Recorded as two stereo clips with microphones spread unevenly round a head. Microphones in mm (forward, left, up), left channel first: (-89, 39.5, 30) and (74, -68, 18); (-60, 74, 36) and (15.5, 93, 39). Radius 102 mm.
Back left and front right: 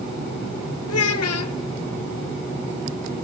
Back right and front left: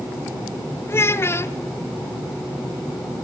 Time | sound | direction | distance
0.9 | a child speaking | 135° left | 1.3 m